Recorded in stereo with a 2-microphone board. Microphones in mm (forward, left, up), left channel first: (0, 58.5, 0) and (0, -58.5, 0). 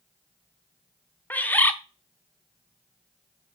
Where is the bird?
15° left (ahead or behind), 0.7 m.